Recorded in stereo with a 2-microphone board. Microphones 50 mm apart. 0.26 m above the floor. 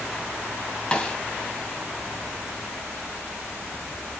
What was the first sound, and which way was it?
A snare drum, 20° left (ahead or behind).